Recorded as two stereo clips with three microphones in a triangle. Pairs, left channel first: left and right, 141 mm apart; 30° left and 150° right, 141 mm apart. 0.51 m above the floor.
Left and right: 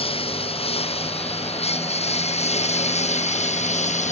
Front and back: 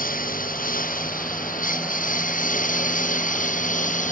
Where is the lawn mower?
40° left; by 4.1 s 55° left.